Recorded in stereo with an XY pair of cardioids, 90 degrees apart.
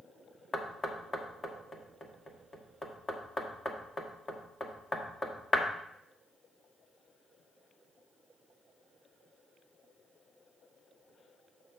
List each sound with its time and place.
0.5 s knocking: 30° left, 1.3 m